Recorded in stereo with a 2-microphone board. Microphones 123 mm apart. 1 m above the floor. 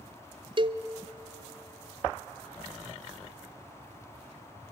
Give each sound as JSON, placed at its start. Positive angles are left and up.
{"t": 0.6, "sound": "a cowbell", "side_deg": -40, "distance_m": 0.7}